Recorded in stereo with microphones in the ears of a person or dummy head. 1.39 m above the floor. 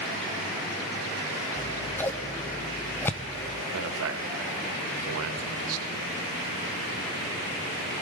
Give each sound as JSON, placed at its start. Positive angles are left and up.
{"t": 1.6, "sound": "scissors", "side_deg": 10, "distance_m": 0.5}
{"t": 3.7, "sound": "a man speaking", "side_deg": -70, "distance_m": 1.5}